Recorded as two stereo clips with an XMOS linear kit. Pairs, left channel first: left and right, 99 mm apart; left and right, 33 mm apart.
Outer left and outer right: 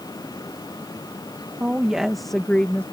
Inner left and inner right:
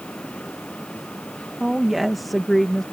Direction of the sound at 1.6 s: 15° right (ahead or behind).